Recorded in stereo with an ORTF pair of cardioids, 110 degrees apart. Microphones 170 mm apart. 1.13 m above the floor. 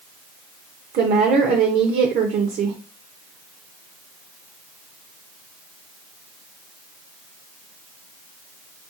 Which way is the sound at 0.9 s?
65° right.